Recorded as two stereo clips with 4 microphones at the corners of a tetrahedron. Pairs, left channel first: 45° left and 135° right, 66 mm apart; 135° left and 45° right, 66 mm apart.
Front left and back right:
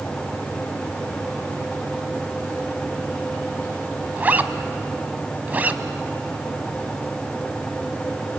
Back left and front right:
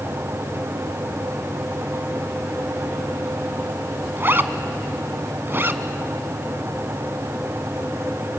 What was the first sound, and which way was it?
A zipper, 80° right.